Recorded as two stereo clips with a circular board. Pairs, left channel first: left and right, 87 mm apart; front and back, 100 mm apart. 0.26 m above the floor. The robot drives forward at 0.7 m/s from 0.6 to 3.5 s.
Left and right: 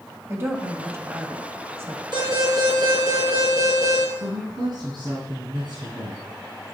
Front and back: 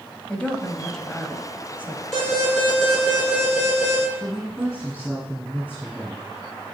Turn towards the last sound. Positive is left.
turn(degrees=-105)